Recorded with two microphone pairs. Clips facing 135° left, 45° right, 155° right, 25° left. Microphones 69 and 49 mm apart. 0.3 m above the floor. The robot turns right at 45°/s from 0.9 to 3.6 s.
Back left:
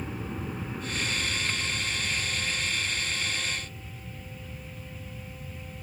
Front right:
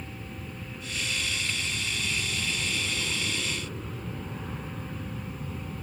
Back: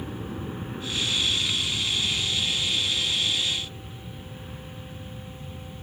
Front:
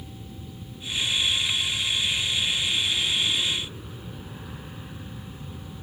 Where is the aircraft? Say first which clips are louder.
Back left 5 dB, back 8 dB; 170° right; by 5.8 s 45° right.